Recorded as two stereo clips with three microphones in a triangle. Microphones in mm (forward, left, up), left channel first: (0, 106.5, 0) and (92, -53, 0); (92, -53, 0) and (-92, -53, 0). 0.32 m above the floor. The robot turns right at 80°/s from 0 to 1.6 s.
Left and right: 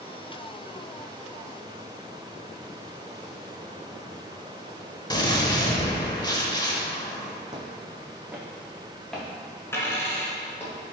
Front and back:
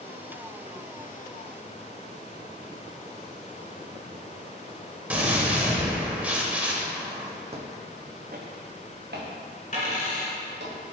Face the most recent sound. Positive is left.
turn(degrees=45)